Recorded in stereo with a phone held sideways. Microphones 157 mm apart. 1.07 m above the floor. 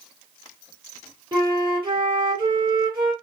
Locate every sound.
1.3 s a flute: 30° right (ahead or behind), 3 m